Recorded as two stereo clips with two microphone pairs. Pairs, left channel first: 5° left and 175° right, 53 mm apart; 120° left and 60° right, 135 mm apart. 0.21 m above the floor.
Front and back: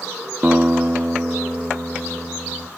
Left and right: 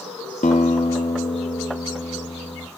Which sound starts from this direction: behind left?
A guitar, at 0.4 s.